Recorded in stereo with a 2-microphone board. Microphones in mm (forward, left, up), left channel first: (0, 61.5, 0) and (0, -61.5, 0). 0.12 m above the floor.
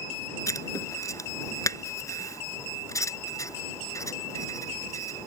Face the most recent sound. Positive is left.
turn(degrees=25)  # may be behind; listen again after turning